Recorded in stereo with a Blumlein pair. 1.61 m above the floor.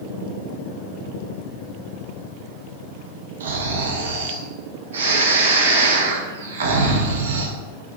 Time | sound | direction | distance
3.4 | snoring | 65° right | 0.8 m